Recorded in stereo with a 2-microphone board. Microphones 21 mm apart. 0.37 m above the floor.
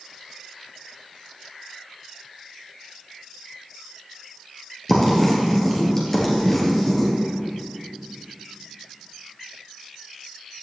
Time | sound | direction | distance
4.9 | writing | 15° left (ahead or behind) | 2.5 m